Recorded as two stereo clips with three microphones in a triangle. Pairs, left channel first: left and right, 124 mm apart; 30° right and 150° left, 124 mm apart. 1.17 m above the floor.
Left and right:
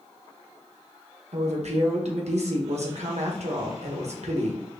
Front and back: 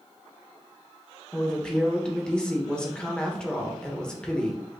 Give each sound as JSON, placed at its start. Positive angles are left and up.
{"t": 1.3, "sound": "a woman speaking", "azimuth_deg": -115, "distance_m": 1.0}